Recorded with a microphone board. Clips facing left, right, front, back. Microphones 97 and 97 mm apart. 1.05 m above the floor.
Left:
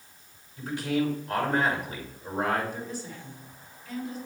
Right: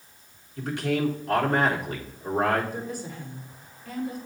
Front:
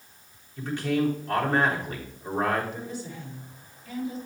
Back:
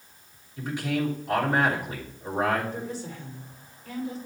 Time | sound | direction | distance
0.6 | a man speaking | 100° right | 3.5 m
2.7 | a woman speaking | 130° right | 3 m